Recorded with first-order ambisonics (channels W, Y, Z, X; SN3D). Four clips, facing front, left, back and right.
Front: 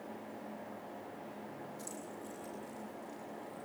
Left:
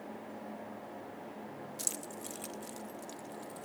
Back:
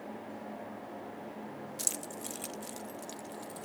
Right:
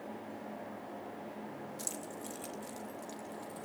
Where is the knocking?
No knocking in this recording.